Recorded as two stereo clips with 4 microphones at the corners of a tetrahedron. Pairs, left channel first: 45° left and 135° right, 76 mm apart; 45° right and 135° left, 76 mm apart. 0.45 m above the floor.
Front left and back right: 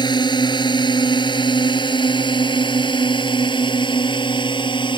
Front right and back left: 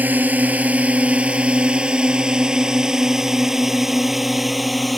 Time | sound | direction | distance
0.0 | a drone | 65° left | ?